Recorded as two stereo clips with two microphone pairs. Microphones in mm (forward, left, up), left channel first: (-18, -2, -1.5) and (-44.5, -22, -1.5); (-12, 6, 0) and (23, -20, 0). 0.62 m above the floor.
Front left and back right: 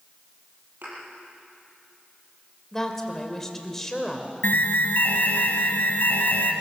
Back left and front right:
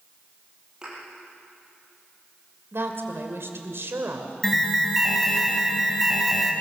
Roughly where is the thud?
Right.